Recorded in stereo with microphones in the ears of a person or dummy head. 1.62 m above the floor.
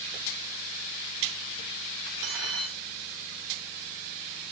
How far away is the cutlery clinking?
About 4 m.